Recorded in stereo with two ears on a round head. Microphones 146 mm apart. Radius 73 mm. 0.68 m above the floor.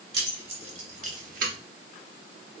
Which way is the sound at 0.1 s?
35° right (ahead or behind).